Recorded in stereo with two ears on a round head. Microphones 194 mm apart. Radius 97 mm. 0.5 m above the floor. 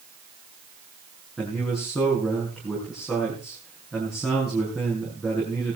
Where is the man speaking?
Centre (ahead or behind), 6.5 m.